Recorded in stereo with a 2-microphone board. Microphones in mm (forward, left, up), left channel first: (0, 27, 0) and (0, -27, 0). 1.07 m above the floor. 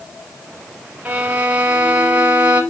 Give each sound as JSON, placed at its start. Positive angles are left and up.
{"t": 1.1, "sound": "a violin", "side_deg": -25, "distance_m": 2.5}